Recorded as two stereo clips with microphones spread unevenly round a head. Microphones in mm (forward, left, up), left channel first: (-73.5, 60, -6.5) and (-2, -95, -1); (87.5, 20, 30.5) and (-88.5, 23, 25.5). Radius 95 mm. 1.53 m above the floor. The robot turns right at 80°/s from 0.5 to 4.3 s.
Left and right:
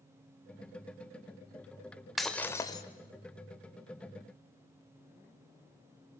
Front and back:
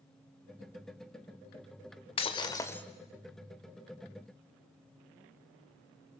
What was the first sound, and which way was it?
Breaking glass, 20° left.